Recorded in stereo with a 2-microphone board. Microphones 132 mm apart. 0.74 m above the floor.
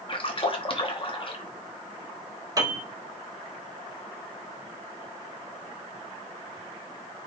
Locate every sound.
0.1 s a splash: 40° left (ahead or behind), 0.8 m
2.6 s a piano: 25° right (ahead or behind), 1.1 m